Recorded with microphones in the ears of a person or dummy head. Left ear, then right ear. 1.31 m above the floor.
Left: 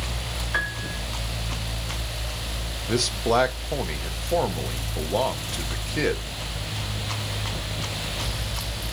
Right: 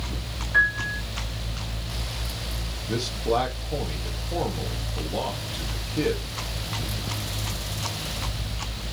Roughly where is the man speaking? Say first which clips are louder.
Left 3 dB; left.